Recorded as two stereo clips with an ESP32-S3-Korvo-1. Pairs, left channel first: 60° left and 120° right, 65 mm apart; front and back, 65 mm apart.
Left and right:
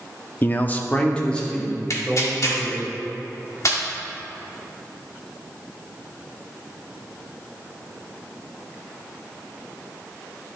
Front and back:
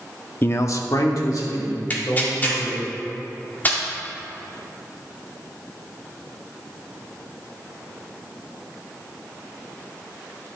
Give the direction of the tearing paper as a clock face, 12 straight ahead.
10 o'clock.